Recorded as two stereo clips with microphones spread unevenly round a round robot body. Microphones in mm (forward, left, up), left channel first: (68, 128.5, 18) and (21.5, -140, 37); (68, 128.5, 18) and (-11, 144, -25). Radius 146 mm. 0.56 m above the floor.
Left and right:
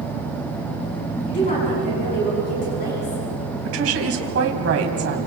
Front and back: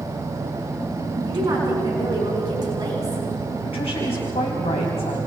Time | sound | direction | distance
1.2 | a woman speaking | 145° left | 6.5 m
3.6 | a woman speaking | 60° right | 4 m